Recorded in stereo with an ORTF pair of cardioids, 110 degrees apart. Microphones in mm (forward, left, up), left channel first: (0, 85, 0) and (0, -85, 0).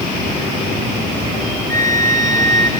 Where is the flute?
20° left, 2 m.